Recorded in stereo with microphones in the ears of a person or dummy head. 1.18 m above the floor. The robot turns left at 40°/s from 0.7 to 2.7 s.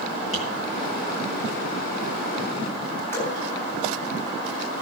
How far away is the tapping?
About 9.5 m.